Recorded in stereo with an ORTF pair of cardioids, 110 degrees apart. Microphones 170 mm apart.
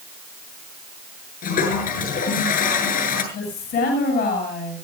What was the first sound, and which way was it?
A toilet flushing, 55° left.